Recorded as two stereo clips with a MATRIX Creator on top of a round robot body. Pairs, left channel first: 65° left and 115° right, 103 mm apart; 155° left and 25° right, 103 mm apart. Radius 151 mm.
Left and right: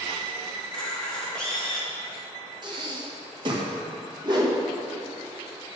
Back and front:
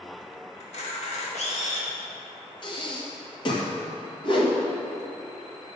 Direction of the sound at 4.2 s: 160° right.